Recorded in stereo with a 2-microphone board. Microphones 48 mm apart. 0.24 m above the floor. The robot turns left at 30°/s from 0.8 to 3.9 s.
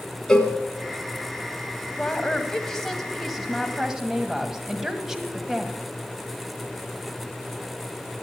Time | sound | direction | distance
0.3 | a cowbell | 15° left (ahead or behind) | 1.4 m
2.0 | a woman speaking | 40° left | 1.5 m